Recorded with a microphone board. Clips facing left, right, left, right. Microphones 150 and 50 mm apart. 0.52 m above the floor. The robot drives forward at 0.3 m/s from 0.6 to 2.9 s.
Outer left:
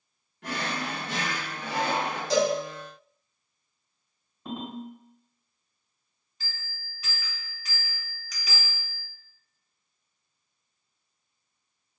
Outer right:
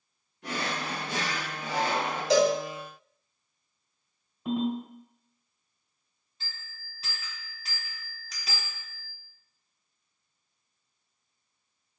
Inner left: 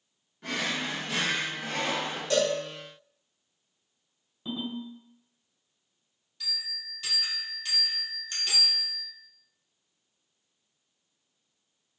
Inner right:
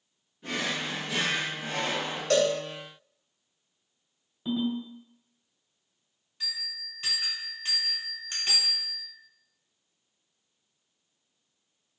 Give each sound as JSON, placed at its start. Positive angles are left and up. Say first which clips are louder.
{"t": 0.4, "sound": "a drawer", "louder": "outer left 1 dB, even", "side_deg": 80, "distance_m": 1.1}
{"t": 2.3, "sound": "a cowbell", "louder": "outer right 2 dB, inner right 2 dB", "side_deg": -60, "distance_m": 1.0}
{"t": 4.5, "sound": "a ringtone", "louder": "outer right 7 dB, inner right 5 dB", "side_deg": -10, "distance_m": 1.3}
{"t": 6.4, "sound": "a bell", "louder": "outer left 2 dB, even", "side_deg": -30, "distance_m": 0.9}